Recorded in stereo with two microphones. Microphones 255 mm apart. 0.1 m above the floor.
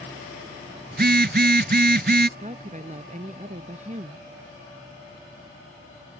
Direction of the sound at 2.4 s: 30° right (ahead or behind).